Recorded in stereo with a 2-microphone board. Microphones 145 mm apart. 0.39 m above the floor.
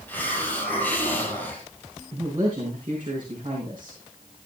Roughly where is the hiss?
Centre.